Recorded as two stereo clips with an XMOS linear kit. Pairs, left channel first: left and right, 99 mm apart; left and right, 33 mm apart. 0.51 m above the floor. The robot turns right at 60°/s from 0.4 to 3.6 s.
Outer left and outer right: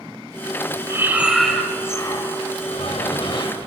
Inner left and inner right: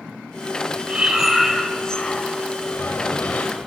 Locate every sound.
0.9 s breathing: 35° right, 3 m; by 3.6 s 130° left, 3 m